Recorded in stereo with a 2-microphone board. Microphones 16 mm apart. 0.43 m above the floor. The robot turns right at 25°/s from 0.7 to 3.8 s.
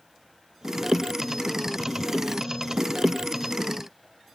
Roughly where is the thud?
No thud in this recording.